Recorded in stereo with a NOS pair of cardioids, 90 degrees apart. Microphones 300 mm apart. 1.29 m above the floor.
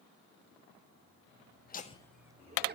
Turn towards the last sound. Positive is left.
turn(degrees=-35)